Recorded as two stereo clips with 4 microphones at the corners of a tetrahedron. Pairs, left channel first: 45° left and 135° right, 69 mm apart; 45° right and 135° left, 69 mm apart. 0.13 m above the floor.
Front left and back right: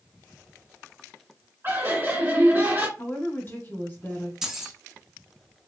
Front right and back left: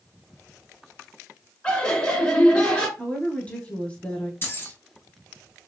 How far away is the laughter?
About 1.9 m.